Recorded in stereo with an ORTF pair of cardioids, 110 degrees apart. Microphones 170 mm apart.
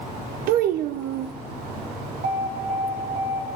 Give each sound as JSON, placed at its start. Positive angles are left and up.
{"t": 0.5, "sound": "a child speaking", "azimuth_deg": -70, "distance_m": 0.5}
{"t": 2.2, "sound": "an alarm", "azimuth_deg": -60, "distance_m": 3.5}